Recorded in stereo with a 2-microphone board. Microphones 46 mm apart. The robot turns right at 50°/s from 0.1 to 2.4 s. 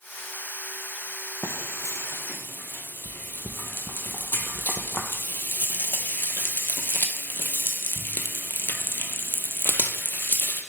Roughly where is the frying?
Left.